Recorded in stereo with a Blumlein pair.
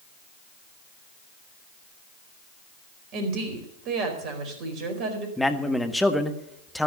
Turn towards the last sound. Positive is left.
turn(degrees=5)